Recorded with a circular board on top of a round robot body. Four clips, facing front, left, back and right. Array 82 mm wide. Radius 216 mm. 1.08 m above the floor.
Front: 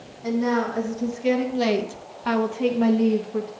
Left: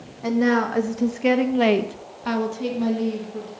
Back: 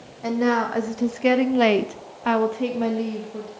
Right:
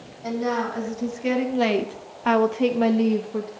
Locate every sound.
0.2 s a woman speaking: 140° left, 1.4 m; by 3.5 s 65° right, 1.1 m